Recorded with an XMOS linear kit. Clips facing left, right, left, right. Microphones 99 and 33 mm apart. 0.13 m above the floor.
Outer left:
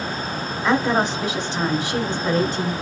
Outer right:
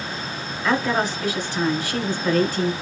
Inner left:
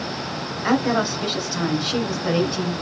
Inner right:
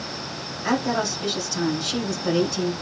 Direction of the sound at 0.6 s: 20° left (ahead or behind).